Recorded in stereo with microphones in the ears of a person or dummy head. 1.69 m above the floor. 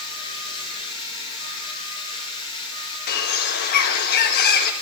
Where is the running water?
30° left (ahead or behind), 5 m.